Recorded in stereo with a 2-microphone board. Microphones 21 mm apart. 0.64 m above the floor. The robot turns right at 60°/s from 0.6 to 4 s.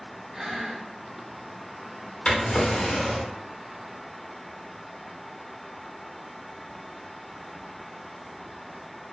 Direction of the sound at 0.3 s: 20° right (ahead or behind).